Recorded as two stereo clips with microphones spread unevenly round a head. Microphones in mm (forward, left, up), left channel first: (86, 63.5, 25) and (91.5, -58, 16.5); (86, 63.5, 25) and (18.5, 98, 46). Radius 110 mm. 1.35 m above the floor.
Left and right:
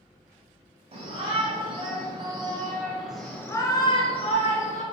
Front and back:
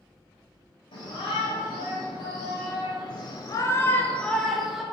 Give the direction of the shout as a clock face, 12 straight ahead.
2 o'clock.